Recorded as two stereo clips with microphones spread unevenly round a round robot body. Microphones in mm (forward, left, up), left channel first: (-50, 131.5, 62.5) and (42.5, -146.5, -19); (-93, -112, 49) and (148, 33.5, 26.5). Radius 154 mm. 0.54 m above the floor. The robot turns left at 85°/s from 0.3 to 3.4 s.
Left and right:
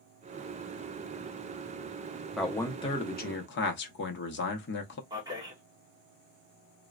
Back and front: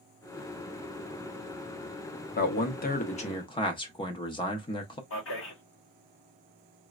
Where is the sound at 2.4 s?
120° right, 0.7 m; by 5.0 s 150° left, 0.7 m.